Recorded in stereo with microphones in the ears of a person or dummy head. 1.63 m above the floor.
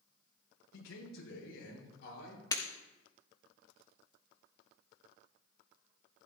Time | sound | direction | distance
0.7 | a man speaking | 75° left (ahead or behind) | 5 m
2.5 | breaking glass | 20° left (ahead or behind) | 1.4 m